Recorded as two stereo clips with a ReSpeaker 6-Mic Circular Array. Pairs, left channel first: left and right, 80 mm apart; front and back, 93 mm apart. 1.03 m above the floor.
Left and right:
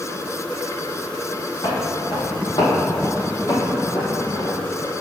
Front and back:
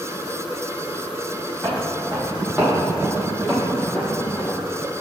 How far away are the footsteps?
About 2.5 m.